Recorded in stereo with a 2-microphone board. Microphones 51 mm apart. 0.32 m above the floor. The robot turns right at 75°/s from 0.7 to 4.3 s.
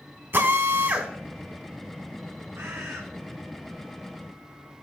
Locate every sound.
0.3 s a drill: 40° right (ahead or behind), 1.4 m; by 1.1 s 15° right (ahead or behind), 1.4 m
2.5 s a bird: 110° right, 2.5 m; by 3.0 s 75° right, 2.5 m